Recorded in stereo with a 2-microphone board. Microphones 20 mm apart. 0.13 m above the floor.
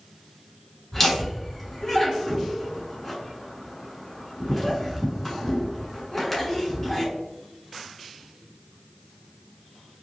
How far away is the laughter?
About 1.1 m.